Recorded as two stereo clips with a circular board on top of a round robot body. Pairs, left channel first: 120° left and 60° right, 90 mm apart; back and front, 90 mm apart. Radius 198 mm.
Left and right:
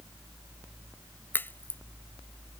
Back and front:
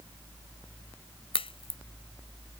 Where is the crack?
170° right.